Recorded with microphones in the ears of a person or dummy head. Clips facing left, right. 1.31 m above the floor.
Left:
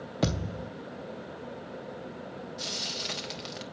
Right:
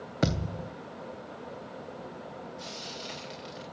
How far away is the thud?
About 0.8 m.